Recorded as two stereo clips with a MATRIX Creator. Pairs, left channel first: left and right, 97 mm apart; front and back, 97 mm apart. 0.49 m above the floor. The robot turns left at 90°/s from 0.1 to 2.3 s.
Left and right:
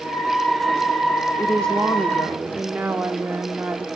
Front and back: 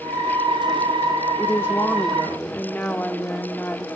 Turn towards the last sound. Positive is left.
turn(degrees=-40)